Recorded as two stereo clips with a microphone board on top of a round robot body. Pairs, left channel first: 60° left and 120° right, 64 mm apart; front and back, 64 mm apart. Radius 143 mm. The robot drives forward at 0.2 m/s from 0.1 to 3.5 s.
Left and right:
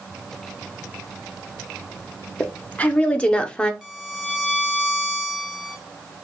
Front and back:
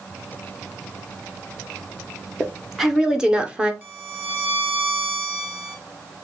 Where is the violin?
160° left, 0.9 m.